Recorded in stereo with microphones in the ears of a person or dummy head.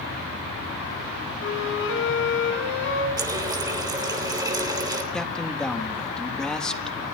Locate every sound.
1.4 s a flute: 65° left (ahead or behind), 7 m
3.2 s a running tap: 20° right (ahead or behind), 3 m
5.1 s a man speaking: 5° left (ahead or behind), 1.6 m